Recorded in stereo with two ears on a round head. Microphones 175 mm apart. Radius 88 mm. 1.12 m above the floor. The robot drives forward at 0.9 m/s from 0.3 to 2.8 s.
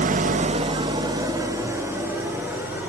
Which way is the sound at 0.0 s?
40° right (ahead or behind).